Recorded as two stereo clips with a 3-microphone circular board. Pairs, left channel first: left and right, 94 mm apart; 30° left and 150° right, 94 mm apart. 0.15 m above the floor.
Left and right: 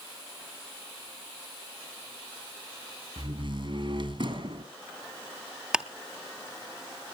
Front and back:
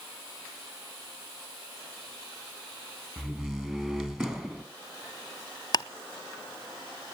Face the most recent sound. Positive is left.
turn(degrees=-10)